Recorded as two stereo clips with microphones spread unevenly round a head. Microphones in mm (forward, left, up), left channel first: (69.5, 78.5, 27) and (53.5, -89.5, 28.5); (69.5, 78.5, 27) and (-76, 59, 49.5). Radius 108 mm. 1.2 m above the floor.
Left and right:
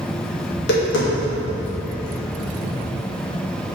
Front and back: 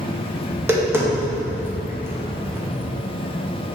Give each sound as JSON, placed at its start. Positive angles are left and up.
{"t": 0.5, "sound": "tapping", "azimuth_deg": 110, "distance_m": 1.8}